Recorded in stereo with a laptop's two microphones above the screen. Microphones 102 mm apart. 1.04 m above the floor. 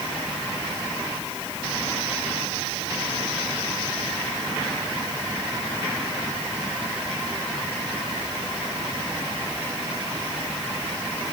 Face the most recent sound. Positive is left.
No sound to turn to.